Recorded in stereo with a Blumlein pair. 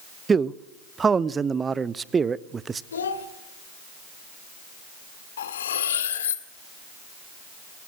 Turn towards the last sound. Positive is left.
turn(degrees=60)